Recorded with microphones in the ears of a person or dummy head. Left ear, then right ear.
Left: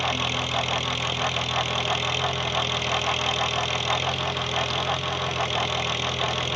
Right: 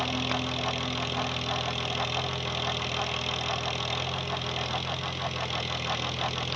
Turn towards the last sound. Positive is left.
turn(degrees=15)  # may be behind; listen again after turning